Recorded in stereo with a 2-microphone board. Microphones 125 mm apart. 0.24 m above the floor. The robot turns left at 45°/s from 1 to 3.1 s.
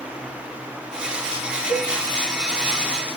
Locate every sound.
1.7 s a cowbell: 35° left (ahead or behind), 2 m; by 1.9 s 40° left (ahead or behind), 2 m